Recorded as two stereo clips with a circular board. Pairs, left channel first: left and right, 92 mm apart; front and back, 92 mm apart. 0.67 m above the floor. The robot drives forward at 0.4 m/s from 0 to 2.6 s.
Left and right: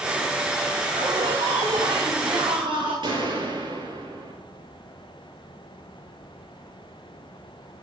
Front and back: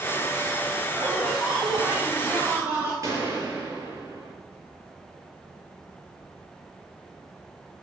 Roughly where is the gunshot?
Behind right.